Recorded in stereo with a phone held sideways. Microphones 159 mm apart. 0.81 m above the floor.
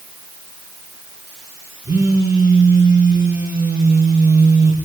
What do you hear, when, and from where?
1.9 s a phone buzzing: 25° right (ahead or behind), 4 m